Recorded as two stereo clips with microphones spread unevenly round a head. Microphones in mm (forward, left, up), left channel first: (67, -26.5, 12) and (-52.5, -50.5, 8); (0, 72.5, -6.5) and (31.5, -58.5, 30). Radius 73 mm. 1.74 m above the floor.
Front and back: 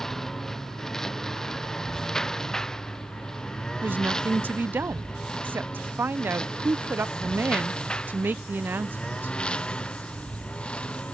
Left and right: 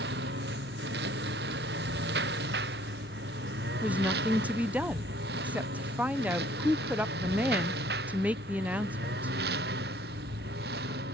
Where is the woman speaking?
110° right.